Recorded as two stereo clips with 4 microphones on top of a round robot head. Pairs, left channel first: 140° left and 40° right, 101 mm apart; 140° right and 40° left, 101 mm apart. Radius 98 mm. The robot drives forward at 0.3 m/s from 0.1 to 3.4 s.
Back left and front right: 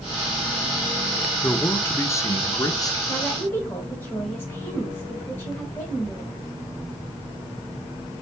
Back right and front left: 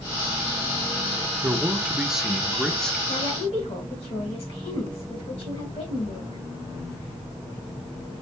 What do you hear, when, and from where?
1.4 s a man speaking: 90° left, 0.9 m; by 3.0 s 140° left, 1.0 m
3.1 s a woman speaking: 150° right, 3 m